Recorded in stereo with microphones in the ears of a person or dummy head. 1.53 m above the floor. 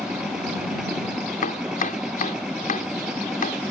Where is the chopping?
40° left (ahead or behind).